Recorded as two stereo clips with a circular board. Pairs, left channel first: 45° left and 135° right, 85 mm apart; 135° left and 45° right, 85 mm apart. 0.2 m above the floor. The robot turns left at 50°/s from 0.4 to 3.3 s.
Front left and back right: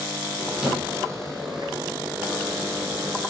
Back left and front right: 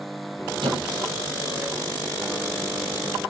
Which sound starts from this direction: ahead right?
A squeak, at 0.6 s.